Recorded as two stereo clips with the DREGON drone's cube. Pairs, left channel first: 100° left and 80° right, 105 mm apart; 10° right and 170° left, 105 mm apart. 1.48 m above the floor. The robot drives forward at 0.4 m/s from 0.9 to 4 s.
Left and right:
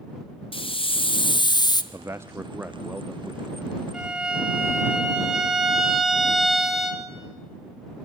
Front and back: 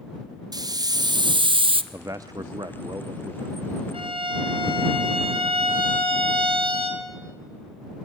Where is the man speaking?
130° right, 0.6 m; by 3.8 s 160° right, 1.2 m.